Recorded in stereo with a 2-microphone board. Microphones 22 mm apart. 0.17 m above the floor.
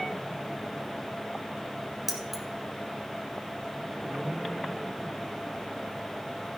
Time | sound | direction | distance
2.1 | keys jangling | 10° right (ahead or behind) | 1.9 m